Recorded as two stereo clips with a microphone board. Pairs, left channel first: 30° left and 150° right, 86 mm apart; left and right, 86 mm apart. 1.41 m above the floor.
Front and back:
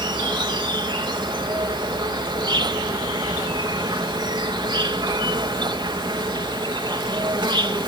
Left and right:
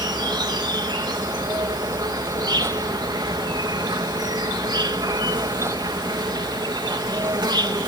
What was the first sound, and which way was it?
An insect, 125° right.